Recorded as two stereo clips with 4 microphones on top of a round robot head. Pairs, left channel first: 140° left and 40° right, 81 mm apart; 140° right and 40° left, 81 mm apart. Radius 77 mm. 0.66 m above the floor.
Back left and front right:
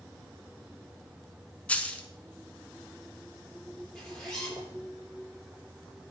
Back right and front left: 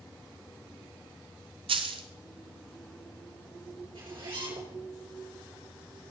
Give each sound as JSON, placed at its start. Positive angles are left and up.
{"t": 1.7, "sound": "a dropped coin", "azimuth_deg": 60, "distance_m": 1.0}
{"t": 4.0, "sound": "a zipper", "azimuth_deg": 55, "distance_m": 8.5}